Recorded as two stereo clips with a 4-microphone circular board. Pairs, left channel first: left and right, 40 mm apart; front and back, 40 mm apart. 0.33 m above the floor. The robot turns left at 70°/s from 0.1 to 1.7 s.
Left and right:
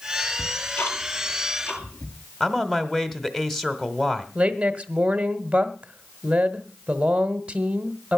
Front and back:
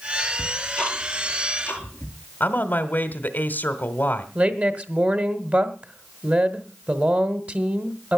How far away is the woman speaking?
About 1.4 m.